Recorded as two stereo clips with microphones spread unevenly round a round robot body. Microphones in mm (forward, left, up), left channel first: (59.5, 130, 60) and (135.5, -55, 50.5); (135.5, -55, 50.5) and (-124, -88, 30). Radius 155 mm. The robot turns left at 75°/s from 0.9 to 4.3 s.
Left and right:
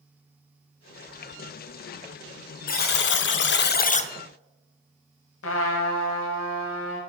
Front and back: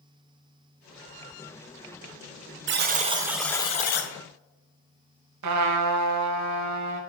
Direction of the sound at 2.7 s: 155° left.